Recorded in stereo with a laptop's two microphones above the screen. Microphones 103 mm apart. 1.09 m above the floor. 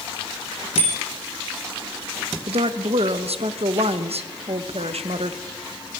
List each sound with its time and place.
0.8 s a bicycle bell: 70° left (ahead or behind), 3 m
2.5 s a woman speaking: 75° right (ahead or behind), 0.9 m